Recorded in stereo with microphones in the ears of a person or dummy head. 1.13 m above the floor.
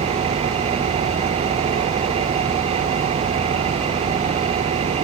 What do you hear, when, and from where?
0.0 s an engine running: 30° right (ahead or behind)